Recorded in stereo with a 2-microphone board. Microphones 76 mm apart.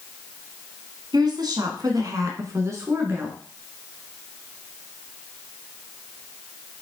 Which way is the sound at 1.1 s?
60° right (ahead or behind).